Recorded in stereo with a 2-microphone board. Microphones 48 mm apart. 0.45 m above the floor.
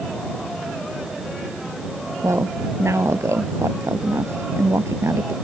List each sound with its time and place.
2.2 s a woman speaking: 75° right (ahead or behind)